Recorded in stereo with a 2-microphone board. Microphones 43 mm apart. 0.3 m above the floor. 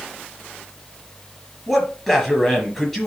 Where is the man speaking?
10° left (ahead or behind), 5 m.